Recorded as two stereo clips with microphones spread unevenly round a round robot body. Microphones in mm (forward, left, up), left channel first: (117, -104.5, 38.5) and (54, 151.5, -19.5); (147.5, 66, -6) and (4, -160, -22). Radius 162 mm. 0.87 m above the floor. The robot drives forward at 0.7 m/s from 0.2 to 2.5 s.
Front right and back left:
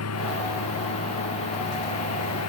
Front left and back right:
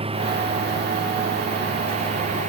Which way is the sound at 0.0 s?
55° right.